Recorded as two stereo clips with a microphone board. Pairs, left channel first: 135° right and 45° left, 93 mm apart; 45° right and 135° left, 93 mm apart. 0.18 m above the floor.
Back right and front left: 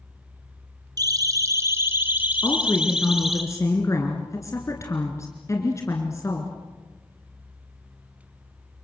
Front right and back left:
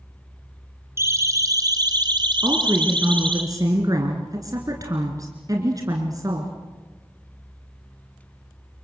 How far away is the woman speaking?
About 2.5 m.